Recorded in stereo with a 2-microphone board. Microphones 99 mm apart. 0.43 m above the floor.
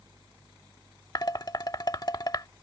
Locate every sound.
1.1 s dishes clattering: 40° left (ahead or behind)